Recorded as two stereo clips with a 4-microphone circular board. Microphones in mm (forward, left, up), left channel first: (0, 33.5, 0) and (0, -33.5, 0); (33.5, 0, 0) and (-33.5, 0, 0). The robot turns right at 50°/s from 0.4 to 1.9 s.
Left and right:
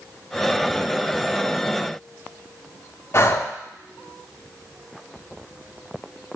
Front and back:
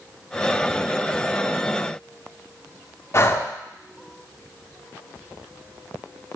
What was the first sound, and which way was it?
Breathing, 45° left.